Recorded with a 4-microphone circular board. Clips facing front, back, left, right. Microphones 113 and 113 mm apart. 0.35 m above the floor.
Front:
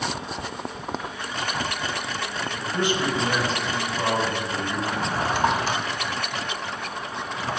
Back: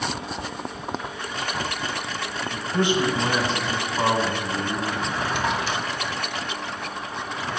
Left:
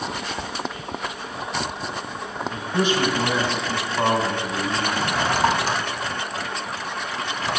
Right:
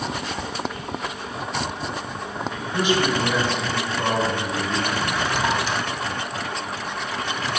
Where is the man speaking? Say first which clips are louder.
Back 3 dB, even; 120° left, 2.5 m.